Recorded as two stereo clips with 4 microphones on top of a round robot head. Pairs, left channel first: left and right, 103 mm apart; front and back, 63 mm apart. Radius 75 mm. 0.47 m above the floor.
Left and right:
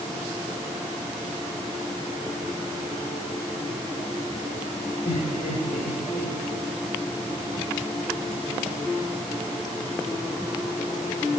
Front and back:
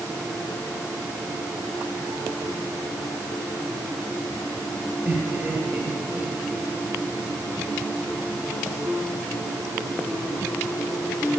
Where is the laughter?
110° left, 9 m.